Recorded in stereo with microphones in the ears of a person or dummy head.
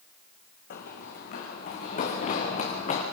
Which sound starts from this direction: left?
Running footsteps, at 0.7 s.